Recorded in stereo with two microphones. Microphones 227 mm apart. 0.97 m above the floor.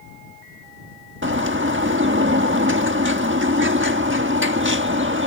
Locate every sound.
1.2 s a bird: 60° right (ahead or behind)